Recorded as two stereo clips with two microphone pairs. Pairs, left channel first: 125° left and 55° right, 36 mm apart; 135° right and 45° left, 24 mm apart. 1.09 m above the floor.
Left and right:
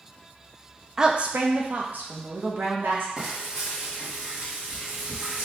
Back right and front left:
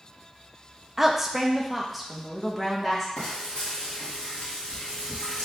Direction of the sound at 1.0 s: 15° right.